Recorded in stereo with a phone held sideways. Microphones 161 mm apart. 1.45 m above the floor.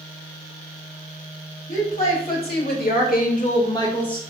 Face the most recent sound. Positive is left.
turn(degrees=5)  # may be behind; listen again after turning